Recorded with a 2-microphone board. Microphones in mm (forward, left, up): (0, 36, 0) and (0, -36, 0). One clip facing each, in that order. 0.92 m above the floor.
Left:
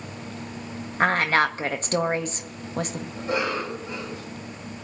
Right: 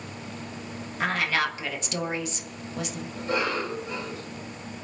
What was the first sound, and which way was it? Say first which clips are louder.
A woman speaking: left 6 dB; 45° left (ahead or behind).